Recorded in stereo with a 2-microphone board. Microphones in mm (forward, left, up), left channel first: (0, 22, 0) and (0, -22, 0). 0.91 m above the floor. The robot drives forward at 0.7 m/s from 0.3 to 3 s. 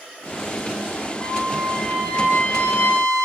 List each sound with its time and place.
1.2 s a trumpet: 40° left (ahead or behind), 3.5 m; by 3.2 s 60° left (ahead or behind), 2.5 m